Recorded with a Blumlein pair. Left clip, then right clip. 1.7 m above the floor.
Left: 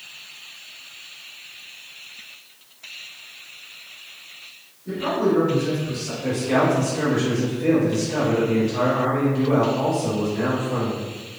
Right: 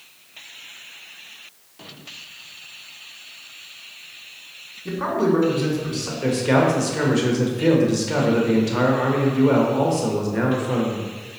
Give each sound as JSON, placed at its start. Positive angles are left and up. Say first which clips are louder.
{"t": 4.8, "sound": "a man speaking", "louder": "right 1 dB", "azimuth_deg": -40, "distance_m": 1.8}
{"t": 6.2, "sound": "a man speaking", "louder": "right 2 dB", "azimuth_deg": -45, "distance_m": 1.4}